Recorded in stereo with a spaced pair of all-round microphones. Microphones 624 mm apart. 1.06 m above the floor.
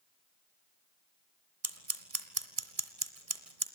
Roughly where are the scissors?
Right.